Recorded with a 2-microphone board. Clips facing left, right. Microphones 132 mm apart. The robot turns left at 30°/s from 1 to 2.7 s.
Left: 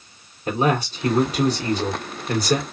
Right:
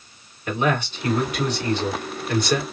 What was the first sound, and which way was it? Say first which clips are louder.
A man speaking: left 2 dB; 120° left.